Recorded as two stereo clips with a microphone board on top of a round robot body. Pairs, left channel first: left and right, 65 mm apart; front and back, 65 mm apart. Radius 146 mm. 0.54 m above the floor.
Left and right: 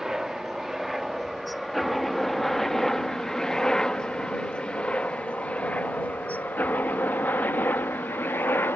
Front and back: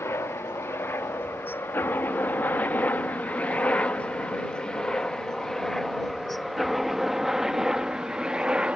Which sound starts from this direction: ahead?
A helicopter, at 0.0 s.